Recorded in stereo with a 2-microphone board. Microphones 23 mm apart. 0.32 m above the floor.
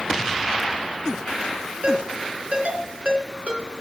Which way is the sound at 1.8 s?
70° right (ahead or behind).